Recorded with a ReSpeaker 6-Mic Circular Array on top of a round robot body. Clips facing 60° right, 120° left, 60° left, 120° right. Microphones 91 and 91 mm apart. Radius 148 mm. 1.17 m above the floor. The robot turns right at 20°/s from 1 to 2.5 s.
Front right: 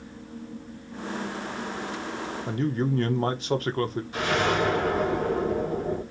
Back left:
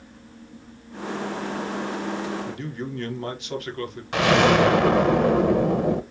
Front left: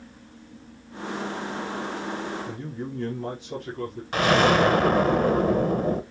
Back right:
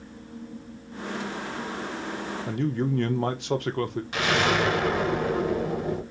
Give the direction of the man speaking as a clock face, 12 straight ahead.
4 o'clock.